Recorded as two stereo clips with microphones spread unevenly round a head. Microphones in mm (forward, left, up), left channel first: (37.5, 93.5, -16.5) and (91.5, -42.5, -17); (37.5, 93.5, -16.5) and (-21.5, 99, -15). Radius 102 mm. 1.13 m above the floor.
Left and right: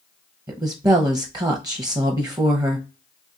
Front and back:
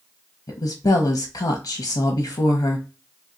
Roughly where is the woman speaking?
Ahead.